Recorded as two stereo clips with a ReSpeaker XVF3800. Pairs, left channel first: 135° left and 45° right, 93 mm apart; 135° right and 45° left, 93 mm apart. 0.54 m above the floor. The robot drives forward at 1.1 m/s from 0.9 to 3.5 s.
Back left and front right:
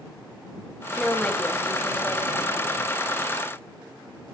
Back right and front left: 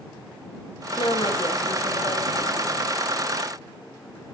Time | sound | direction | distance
1.0 | a woman speaking | 140° right | 2.5 m